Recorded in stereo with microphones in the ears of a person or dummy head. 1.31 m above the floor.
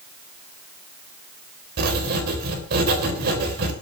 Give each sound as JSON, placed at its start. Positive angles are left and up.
{"t": 1.8, "sound": "writing", "side_deg": -50, "distance_m": 3.5}